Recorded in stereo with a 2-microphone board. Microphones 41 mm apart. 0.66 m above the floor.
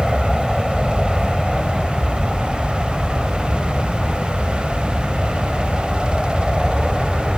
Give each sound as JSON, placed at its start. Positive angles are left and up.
{"t": 0.0, "sound": "an aircraft", "side_deg": 0}